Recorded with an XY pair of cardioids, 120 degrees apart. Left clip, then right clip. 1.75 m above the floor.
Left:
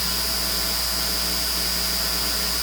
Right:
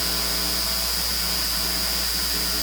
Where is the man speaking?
No man speaking in this recording.